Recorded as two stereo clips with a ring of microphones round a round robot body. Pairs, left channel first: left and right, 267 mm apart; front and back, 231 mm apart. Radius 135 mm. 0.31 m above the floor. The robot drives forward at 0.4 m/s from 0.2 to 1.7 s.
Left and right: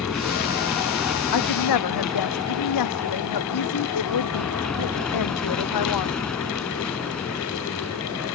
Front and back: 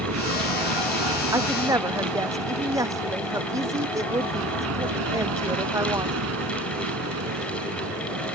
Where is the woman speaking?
105° left.